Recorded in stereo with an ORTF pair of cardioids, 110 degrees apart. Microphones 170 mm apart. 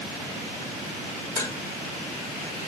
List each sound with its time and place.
1.4 s dishes clattering: 20° left, 3 m